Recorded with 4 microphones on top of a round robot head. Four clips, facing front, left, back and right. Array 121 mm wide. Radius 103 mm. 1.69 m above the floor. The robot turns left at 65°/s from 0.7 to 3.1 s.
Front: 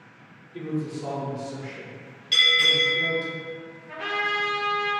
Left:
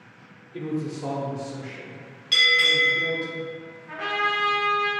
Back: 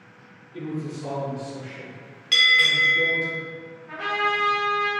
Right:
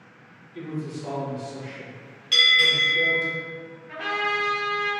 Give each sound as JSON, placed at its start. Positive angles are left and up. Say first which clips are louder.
{"t": 0.5, "sound": "a man speaking", "louder": "left 3 dB, front 1 dB", "azimuth_deg": 95, "distance_m": 0.6}
{"t": 2.3, "sound": "a bell", "louder": "left 1 dB, back 3 dB", "azimuth_deg": 175, "distance_m": 1.3}
{"t": 3.9, "sound": "a trumpet", "louder": "left 1 dB, back 3 dB", "azimuth_deg": 125, "distance_m": 1.8}